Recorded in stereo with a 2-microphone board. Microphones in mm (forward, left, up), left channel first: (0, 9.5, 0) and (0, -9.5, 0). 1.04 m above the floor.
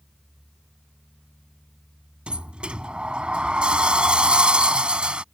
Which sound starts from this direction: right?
A sliding door, at 2.3 s.